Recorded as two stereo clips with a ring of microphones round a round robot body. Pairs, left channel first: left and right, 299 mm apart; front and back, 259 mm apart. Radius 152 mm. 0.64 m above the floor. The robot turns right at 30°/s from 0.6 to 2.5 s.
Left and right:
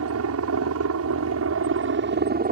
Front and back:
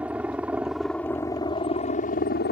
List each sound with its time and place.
0.0 s a helicopter: 95° right; by 2.5 s 40° right